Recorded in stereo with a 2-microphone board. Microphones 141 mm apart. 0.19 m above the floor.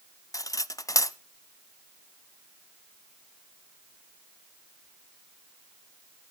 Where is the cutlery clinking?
25° left (ahead or behind), 0.6 m.